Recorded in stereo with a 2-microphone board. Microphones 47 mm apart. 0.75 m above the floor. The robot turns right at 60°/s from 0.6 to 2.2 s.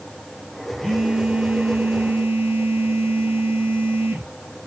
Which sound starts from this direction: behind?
A phone buzzing, at 0.8 s.